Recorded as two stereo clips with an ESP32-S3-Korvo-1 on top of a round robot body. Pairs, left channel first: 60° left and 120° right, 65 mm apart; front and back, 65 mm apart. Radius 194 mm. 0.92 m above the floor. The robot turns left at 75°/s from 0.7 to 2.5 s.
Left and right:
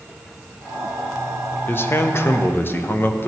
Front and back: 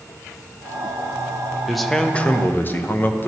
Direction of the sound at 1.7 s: 95° left.